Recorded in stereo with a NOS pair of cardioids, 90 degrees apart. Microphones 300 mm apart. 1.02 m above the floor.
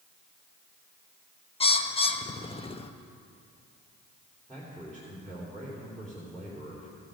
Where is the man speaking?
5° left, 3.5 m.